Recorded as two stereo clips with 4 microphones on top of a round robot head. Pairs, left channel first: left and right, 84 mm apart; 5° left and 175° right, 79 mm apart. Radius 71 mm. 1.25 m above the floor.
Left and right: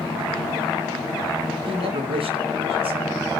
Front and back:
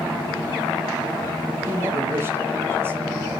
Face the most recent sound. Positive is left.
turn(degrees=-105)